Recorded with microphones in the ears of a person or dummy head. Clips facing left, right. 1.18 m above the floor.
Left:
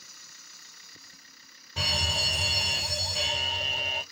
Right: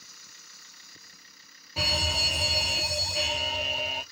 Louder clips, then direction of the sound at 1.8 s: Right 2 dB; 5° right (ahead or behind).